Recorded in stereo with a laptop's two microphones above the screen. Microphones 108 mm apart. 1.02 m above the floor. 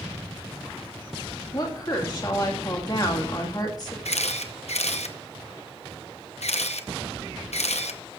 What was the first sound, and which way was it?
A woman speaking, 40° left (ahead or behind).